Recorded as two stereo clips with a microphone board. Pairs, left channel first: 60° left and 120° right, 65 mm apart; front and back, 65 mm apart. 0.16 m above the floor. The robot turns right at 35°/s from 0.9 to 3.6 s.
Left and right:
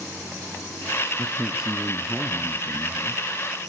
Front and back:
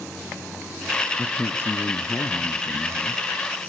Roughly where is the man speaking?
Ahead right.